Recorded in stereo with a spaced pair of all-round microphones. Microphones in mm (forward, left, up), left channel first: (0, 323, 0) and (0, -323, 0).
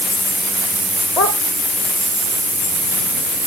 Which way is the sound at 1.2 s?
70° left (ahead or behind).